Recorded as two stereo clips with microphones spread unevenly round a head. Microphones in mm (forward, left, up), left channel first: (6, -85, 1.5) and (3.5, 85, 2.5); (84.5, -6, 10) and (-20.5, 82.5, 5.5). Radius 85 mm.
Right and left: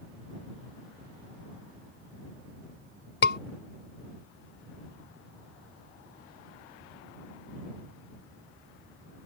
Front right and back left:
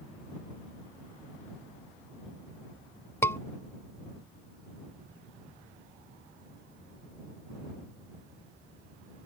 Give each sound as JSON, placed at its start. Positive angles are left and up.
{"t": 3.2, "sound": "a scream", "azimuth_deg": -115}